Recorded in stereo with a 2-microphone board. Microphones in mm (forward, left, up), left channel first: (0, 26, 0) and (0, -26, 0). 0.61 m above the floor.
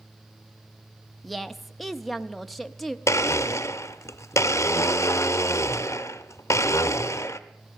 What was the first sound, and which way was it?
A woman speaking, centre (ahead or behind).